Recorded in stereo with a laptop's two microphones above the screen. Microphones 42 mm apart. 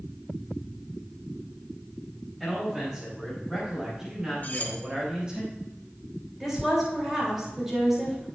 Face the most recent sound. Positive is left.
turn(degrees=-5)  # may be behind; listen again after turning